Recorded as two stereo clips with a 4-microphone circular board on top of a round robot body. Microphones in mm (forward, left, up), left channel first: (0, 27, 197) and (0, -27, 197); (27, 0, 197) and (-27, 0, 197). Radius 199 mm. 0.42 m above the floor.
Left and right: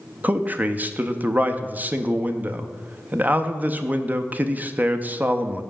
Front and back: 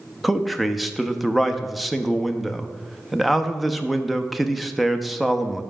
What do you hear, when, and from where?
0.2 s a man speaking: 90° right, 0.8 m